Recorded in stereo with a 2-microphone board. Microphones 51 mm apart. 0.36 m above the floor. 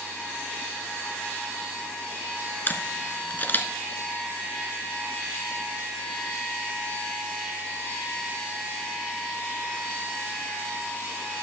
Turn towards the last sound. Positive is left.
turn(degrees=40)  # may be behind; listen again after turning